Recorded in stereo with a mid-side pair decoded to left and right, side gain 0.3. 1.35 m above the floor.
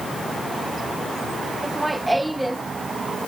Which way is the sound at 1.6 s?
25° right.